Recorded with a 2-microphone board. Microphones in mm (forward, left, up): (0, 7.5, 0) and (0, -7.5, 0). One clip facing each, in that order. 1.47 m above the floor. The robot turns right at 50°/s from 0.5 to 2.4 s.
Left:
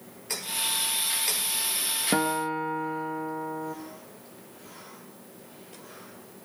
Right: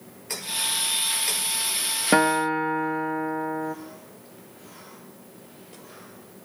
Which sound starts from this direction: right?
A guitar, at 2.1 s.